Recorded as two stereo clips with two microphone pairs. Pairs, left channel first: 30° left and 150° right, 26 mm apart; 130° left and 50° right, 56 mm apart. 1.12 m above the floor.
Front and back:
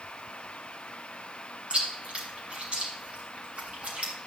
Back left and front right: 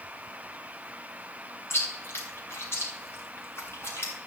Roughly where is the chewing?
Behind.